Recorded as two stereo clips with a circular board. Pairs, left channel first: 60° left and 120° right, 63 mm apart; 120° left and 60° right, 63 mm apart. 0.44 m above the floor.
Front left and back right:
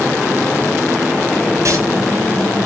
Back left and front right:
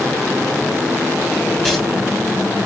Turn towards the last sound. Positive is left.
turn(degrees=-160)